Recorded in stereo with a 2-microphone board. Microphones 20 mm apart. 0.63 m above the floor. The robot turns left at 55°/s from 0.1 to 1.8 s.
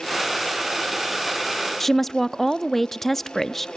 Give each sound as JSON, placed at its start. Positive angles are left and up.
{"t": 1.8, "sound": "a woman speaking", "side_deg": 20, "distance_m": 0.5}